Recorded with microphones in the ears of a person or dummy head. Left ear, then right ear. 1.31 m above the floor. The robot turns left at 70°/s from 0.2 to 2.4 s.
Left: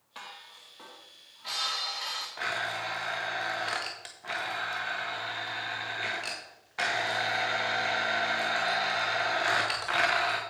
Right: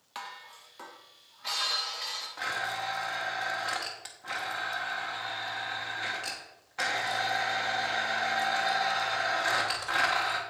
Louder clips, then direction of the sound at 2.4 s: Even; 5° left (ahead or behind).